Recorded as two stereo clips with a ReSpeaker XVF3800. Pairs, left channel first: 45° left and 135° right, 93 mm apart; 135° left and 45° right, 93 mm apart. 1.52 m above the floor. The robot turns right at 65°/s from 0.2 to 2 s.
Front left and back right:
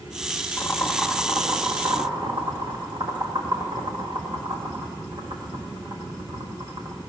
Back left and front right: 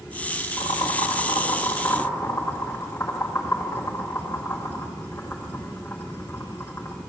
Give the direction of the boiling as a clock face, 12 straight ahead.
8 o'clock.